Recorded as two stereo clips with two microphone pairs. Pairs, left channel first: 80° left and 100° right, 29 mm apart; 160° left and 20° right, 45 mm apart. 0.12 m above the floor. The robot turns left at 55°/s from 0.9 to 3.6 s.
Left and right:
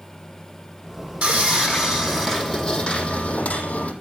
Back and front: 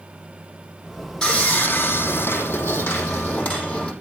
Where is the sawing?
125° right, 5.5 m; by 3.9 s 105° left, 5.5 m.